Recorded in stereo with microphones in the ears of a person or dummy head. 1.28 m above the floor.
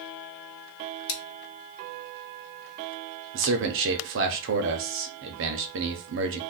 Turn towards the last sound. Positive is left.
turn(degrees=-55)  # may be behind; listen again after turning